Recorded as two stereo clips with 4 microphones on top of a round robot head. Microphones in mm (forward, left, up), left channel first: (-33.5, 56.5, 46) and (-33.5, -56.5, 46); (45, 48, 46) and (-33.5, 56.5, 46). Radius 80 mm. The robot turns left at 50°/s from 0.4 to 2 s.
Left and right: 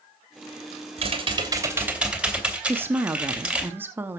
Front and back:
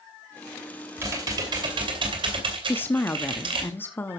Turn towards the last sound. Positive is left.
turn(degrees=-35)